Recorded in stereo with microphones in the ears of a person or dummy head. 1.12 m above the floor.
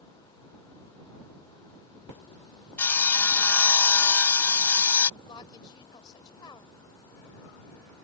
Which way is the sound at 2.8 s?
10° left (ahead or behind).